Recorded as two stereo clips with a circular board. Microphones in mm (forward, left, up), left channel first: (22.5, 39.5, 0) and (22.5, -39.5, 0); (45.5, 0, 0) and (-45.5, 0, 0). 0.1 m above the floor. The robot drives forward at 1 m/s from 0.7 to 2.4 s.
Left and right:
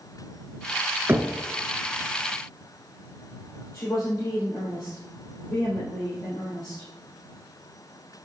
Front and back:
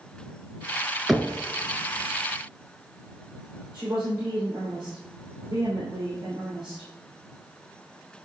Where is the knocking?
90° right, 0.8 m; by 1.4 s 125° right, 0.9 m.